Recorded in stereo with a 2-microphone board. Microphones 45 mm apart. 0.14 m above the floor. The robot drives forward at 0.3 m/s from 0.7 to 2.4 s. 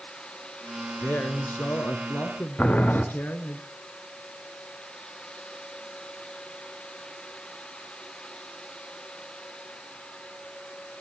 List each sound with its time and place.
1.0 s a man speaking: 45° left (ahead or behind), 1.6 m
2.6 s boiling: 30° left (ahead or behind), 2 m